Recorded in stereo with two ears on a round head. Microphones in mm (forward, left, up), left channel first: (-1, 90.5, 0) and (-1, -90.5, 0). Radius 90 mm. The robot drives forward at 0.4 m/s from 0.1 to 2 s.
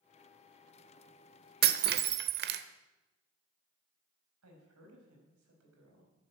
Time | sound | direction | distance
1.6 | breaking glass | 50° right (ahead or behind) | 1.1 m
4.4 | a woman speaking | 85° right | 5 m